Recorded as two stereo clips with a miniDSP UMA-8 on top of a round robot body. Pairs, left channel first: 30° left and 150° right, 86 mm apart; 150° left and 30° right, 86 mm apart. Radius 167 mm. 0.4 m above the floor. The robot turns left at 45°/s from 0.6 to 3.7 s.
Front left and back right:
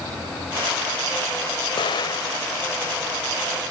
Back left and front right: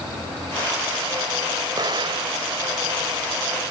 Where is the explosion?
10° left; by 2.4 s 20° right.